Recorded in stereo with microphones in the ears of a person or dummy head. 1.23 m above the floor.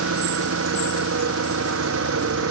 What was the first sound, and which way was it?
An engine running, 85° right.